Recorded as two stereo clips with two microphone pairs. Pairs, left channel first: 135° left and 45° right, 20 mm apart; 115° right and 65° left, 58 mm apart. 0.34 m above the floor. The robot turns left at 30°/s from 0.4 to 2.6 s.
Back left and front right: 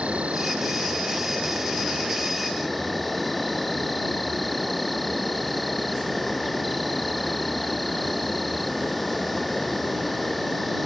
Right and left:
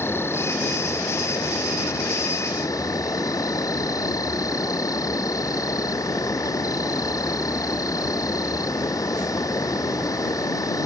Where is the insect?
70° right; by 10.8 s 135° right.